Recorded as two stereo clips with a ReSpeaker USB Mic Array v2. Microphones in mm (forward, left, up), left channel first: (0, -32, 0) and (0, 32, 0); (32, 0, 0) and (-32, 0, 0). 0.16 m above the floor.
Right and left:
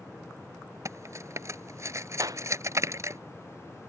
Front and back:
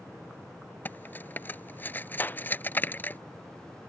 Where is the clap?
60° left.